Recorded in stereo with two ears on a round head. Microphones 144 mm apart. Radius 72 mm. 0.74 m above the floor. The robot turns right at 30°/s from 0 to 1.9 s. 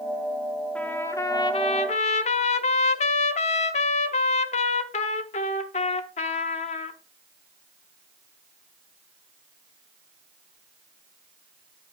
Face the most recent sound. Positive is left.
turn(degrees=40)